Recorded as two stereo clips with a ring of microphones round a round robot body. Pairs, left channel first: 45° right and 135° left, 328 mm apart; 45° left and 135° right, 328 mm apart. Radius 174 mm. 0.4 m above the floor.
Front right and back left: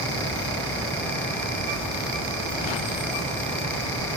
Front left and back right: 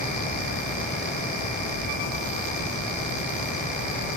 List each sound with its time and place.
Only background noise.